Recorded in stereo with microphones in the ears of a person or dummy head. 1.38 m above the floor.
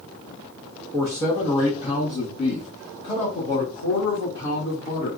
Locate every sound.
0.9 s a man speaking: 5° left (ahead or behind), 0.7 m; by 5.1 s 60° left (ahead or behind), 2.5 m